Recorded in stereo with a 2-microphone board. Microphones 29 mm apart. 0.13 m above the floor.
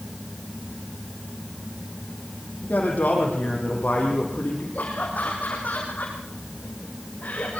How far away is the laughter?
About 4.5 m.